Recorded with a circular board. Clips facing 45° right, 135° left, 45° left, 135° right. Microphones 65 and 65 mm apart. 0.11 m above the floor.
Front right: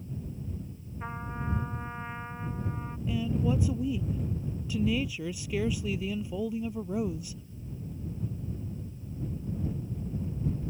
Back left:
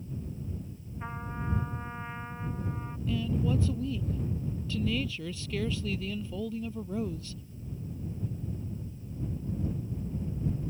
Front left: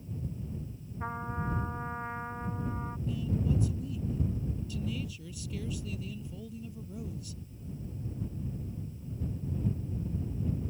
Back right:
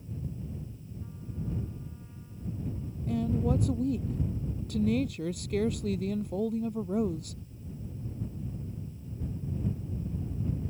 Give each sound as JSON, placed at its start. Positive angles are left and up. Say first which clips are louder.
{"t": 1.0, "sound": "a trumpet", "louder": "front right 1 dB, front left 6 dB", "azimuth_deg": 40}
{"t": 3.1, "sound": "a woman speaking", "louder": "front right 1 dB, back right 5 dB", "azimuth_deg": -120}